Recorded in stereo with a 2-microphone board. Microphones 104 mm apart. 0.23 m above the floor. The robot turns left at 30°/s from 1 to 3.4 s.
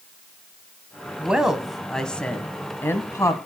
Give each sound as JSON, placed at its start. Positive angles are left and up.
{"t": 1.2, "sound": "a woman speaking", "azimuth_deg": -165, "distance_m": 1.5}